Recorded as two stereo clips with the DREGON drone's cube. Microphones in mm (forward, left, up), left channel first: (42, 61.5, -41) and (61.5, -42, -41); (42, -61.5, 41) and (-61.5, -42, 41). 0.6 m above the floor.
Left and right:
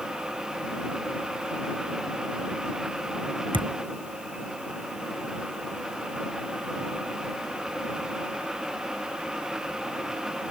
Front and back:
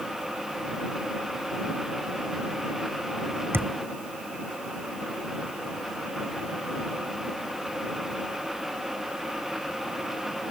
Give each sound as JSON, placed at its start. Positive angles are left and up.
{"t": 3.5, "sound": "a thud", "azimuth_deg": -120}